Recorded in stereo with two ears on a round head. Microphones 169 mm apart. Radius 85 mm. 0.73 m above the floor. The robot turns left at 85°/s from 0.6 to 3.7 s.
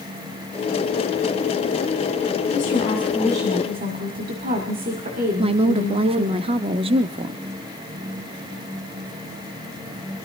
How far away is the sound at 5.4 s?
About 0.6 m.